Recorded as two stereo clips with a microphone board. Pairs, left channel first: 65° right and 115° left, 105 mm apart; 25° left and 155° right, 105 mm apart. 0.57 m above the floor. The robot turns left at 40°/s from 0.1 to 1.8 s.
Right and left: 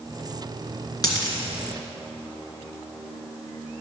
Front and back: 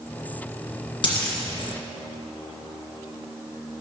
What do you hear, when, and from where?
1.0 s a dropped coin: 15° right, 2.5 m; by 1.4 s 30° right, 2.5 m